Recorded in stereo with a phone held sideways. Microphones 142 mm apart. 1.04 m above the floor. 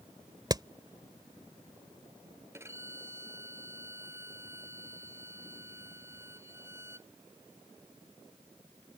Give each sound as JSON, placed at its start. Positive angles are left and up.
{"t": 0.5, "sound": "hammering", "side_deg": -30}
{"t": 2.5, "sound": "a violin", "side_deg": -20}